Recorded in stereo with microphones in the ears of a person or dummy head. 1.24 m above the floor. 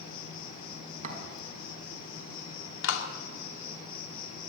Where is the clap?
85° left, 2.5 m.